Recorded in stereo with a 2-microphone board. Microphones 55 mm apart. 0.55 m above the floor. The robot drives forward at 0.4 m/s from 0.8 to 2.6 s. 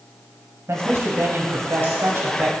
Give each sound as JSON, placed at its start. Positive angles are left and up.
{"t": 0.7, "sound": "a man speaking", "side_deg": -60, "distance_m": 3.0}